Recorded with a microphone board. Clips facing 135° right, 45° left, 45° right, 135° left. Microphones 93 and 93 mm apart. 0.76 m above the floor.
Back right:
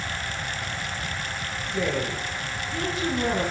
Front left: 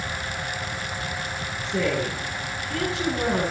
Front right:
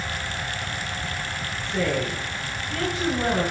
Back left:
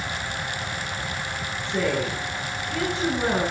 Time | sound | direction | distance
1.6 | a woman speaking | 60° left | 9 m